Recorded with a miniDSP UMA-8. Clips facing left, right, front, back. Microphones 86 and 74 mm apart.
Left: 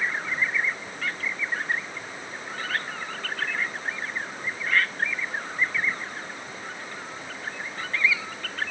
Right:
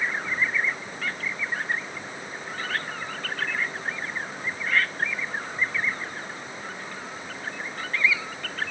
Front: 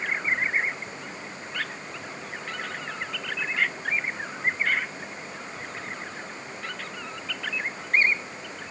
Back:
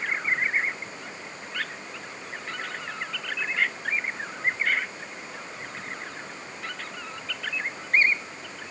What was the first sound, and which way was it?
Only background noise.